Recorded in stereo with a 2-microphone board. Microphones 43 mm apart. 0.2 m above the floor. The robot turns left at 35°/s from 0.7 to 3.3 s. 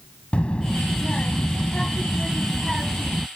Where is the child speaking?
65° left; by 3.3 s 25° right.